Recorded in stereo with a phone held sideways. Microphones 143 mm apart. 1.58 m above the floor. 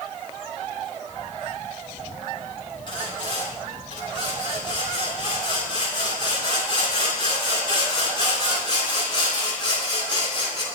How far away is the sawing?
About 10 m.